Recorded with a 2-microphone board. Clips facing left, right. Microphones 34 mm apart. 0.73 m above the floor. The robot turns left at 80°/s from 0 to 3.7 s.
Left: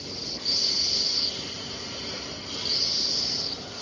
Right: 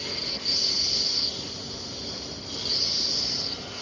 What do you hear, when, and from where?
0.0 s a lawn mower: 70° right (ahead or behind); by 3.8 s 45° right (ahead or behind)